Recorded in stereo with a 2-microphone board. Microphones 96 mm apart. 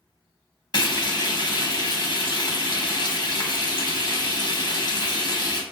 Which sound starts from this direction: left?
Frying, at 0.7 s.